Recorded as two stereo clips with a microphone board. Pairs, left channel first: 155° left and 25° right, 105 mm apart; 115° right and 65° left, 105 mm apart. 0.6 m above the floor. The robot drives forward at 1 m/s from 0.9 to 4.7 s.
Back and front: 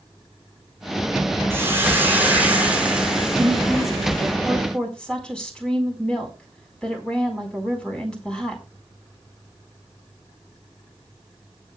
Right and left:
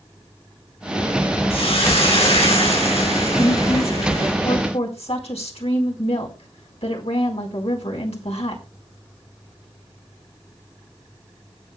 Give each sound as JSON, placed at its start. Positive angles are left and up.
{"t": 1.5, "sound": "a hiss", "azimuth_deg": -90, "distance_m": 5.5}
{"t": 3.4, "sound": "a woman speaking", "azimuth_deg": -105, "distance_m": 4.0}